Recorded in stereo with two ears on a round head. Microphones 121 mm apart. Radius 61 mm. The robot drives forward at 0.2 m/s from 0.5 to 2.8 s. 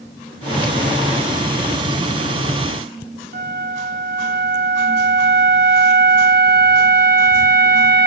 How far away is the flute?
About 0.8 m.